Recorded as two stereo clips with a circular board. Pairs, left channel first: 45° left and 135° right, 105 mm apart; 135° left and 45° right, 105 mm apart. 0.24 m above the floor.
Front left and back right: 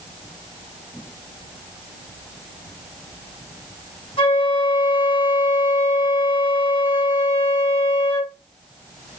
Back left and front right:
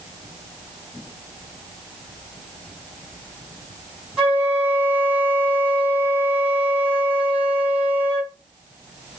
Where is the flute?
35° left, 3.5 m.